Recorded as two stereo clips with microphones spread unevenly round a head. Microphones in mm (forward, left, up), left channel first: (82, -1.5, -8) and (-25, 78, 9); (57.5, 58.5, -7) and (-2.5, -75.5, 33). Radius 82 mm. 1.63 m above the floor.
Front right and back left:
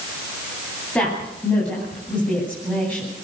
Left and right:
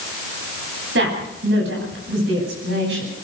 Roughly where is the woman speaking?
Behind right.